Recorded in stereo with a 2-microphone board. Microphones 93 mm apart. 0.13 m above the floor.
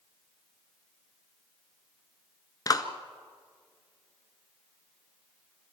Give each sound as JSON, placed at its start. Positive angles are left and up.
{"t": 2.7, "sound": "a clap", "side_deg": 40, "distance_m": 1.4}